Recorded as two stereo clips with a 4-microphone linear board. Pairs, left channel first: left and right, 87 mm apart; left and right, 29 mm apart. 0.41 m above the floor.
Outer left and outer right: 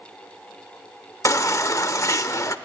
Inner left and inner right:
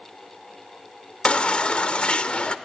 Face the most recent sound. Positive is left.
turn(degrees=35)  # may be behind; listen again after turning